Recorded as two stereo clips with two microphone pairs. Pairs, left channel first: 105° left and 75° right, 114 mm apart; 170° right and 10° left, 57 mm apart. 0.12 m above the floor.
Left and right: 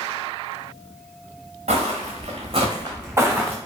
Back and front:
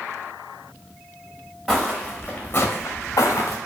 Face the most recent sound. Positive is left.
turn(degrees=-160)